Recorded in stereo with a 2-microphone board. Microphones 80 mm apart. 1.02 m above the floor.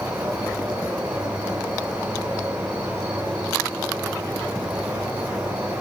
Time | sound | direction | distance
0.0 | an insect | 85° right | 6.5 m